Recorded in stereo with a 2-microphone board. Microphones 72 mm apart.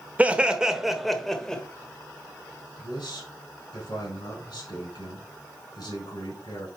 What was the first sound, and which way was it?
Laughter, 20° right (ahead or behind).